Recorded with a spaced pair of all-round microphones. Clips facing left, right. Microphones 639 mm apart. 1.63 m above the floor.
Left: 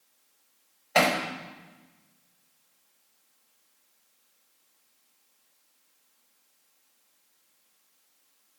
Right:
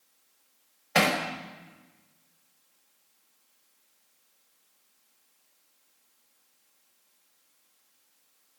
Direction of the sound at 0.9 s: 45° right (ahead or behind).